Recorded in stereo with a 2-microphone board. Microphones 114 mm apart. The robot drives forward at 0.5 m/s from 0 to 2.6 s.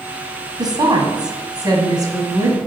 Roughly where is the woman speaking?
Right.